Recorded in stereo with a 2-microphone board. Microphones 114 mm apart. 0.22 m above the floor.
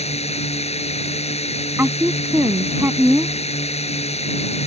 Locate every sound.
0.0 s a drone: 65° left (ahead or behind)
1.8 s a woman speaking: 20° right (ahead or behind)